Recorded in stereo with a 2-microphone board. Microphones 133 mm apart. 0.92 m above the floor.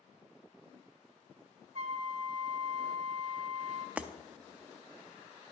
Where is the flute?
55° right (ahead or behind), 1.2 m.